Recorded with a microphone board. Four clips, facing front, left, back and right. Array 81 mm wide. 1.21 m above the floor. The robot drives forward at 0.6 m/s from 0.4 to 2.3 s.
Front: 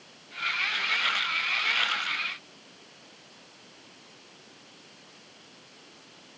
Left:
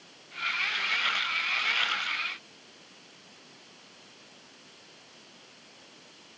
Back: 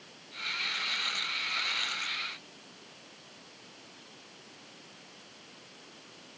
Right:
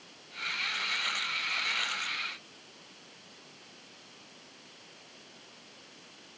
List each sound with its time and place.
Only background noise.